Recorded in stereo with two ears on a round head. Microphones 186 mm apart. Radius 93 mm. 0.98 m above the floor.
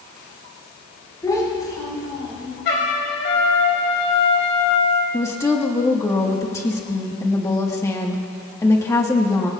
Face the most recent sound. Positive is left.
turn(degrees=15)  # may be behind; listen again after turning